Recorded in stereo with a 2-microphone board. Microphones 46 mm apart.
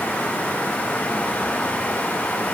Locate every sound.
Only background noise.